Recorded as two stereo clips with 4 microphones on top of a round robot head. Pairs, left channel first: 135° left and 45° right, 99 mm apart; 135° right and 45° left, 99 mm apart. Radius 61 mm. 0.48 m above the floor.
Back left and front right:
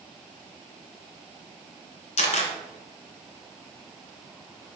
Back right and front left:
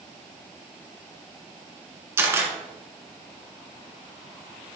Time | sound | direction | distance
2.2 | a camera shutter | 115° left | 2.0 m